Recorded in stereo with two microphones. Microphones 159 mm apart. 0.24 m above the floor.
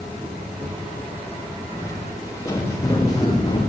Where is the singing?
I don't hear singing.